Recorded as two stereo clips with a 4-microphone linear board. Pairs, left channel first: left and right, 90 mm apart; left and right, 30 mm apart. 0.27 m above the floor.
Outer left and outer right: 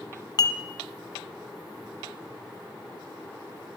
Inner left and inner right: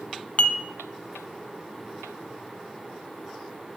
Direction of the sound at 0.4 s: 50° left (ahead or behind).